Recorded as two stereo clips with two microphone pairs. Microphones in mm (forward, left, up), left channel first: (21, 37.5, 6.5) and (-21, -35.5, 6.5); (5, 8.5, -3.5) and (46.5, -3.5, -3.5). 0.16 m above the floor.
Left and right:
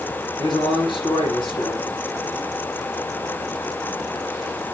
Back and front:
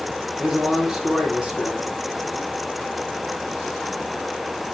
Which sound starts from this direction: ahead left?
A man speaking, at 0.4 s.